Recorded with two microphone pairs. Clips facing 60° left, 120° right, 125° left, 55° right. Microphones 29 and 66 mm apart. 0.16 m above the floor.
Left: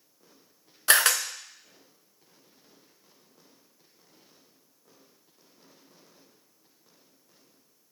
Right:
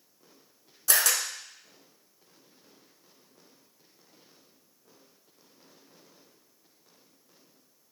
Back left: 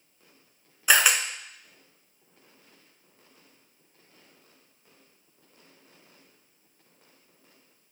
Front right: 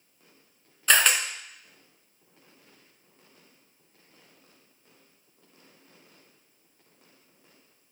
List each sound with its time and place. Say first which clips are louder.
0.9 s a camera shutter: left 5 dB, back left 1 dB; 45° left, 0.6 m